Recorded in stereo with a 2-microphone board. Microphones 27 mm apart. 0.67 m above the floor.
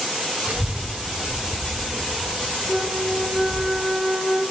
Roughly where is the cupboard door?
I don't hear a cupboard door.